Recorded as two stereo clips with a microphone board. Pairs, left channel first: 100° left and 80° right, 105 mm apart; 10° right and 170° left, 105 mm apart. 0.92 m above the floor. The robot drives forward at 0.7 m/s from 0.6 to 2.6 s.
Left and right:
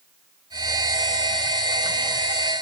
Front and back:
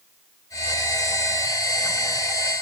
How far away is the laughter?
No laughter in this recording.